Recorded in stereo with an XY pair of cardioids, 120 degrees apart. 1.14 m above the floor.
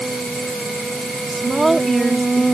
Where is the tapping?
I don't hear tapping.